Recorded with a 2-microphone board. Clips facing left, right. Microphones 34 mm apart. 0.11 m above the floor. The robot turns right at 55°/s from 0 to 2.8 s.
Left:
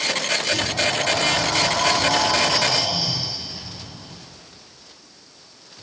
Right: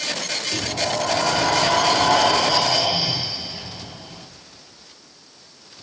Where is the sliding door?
160° right, 1.9 m; by 4.3 s 35° right, 1.9 m.